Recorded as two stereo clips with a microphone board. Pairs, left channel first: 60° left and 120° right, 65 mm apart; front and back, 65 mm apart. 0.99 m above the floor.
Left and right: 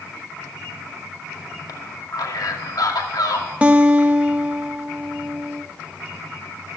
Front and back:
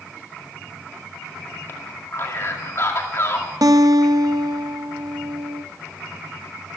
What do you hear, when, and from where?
1.7 s a man speaking: 45° left, 2 m
3.6 s a guitar: 170° left, 1.1 m